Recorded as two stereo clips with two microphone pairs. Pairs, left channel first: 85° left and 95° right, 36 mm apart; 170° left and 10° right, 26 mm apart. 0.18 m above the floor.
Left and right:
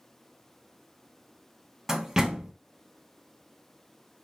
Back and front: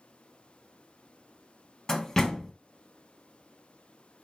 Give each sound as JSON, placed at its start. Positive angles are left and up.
{"t": 1.9, "sound": "a door slam", "azimuth_deg": -145, "distance_m": 0.7}